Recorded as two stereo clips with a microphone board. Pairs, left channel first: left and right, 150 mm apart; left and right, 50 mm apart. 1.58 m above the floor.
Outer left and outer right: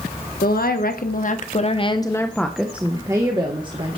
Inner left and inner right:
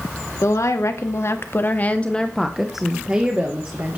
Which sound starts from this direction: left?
A woman speaking, at 0.4 s.